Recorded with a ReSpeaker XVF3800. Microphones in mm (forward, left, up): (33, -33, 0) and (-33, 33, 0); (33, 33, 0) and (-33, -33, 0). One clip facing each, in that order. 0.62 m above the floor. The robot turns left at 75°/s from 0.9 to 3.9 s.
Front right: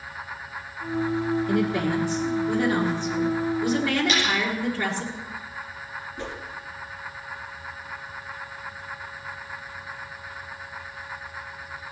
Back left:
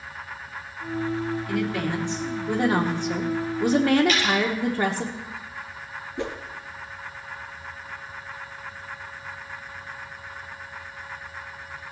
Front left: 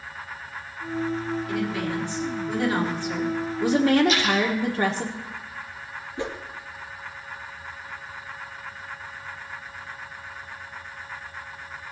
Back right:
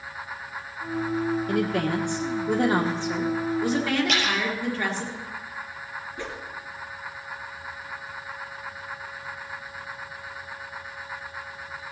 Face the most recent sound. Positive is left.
turn(degrees=115)